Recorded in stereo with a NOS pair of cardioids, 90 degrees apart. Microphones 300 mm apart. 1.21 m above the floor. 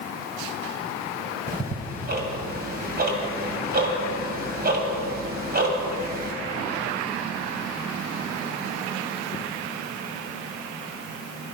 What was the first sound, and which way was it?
Ticking, 35° right.